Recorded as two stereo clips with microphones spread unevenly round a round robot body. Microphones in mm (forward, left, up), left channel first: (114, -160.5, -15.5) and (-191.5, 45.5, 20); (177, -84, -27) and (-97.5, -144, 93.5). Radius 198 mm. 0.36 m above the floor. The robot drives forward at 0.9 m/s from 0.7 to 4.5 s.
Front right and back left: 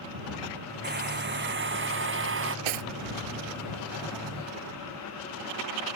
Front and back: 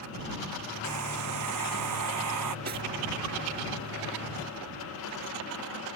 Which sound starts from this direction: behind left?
Cutlery clinking, at 2.6 s.